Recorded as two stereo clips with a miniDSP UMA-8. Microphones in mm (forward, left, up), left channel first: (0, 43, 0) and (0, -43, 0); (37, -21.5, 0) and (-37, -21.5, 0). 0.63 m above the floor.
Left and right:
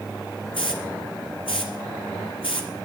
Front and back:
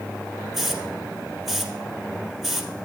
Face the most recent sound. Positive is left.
turn(degrees=90)